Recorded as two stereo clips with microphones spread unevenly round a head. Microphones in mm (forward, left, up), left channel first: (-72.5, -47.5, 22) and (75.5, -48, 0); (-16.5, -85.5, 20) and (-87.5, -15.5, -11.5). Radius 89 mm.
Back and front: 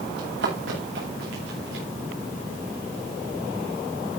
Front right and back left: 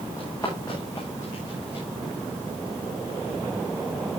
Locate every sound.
0.2 s running footsteps: 25° left, 9 m